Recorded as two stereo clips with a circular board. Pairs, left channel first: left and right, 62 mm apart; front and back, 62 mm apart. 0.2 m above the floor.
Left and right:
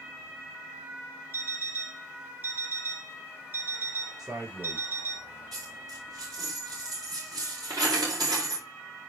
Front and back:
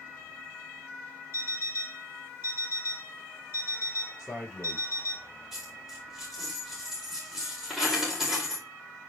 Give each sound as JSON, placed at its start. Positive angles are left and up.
{"t": 1.3, "sound": "an alarm clock", "azimuth_deg": -140, "distance_m": 1.9}
{"t": 4.2, "sound": "a man speaking", "azimuth_deg": -70, "distance_m": 5.5}
{"t": 5.5, "sound": "a dropped coin", "azimuth_deg": -90, "distance_m": 5.0}